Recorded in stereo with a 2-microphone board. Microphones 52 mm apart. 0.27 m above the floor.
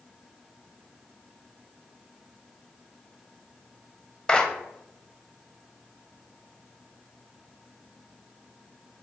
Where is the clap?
15° left (ahead or behind), 0.9 m.